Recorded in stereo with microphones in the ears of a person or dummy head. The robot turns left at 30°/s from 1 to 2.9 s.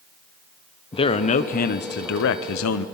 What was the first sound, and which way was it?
A man speaking, 150° left.